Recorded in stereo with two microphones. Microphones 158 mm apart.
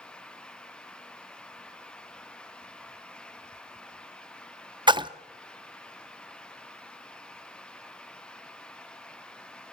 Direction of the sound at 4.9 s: 30° right (ahead or behind).